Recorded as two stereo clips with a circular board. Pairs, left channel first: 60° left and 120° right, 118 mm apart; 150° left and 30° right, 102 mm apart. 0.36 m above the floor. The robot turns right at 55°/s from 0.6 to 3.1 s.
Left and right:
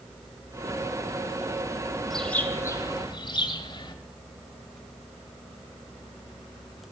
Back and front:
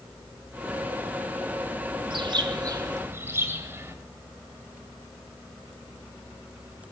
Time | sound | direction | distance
2.1 | a bird | 25° right | 1.5 m